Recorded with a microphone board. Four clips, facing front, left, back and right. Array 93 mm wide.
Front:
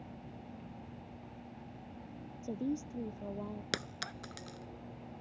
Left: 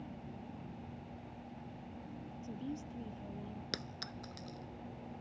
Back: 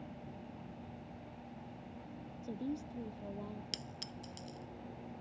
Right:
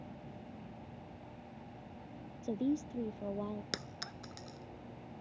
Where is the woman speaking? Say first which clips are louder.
Right 10 dB, front 4 dB; 75° right.